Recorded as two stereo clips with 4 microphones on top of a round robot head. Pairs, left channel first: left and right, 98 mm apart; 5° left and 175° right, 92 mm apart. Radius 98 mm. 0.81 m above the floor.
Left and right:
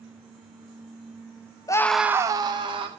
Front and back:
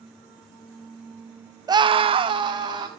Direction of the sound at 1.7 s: 140° left.